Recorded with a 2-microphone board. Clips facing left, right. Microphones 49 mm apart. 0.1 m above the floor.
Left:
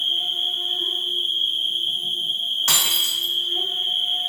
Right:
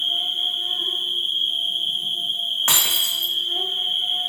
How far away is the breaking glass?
About 0.8 m.